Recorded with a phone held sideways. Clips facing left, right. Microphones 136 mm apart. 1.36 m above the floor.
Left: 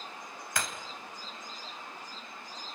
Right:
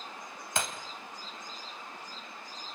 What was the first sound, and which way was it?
Breaking glass, 25° right (ahead or behind).